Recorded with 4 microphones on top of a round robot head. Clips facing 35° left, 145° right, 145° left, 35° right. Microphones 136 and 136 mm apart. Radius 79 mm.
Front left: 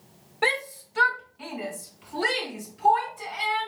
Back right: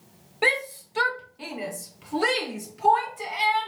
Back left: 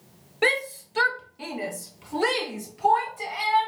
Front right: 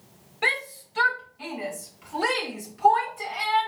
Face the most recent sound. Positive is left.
turn(degrees=-135)